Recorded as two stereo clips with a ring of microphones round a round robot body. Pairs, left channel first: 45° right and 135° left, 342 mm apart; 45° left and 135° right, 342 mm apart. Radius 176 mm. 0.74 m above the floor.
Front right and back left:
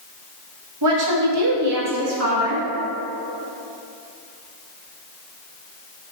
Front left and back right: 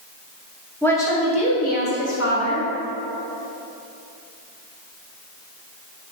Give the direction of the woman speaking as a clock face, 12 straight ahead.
8 o'clock.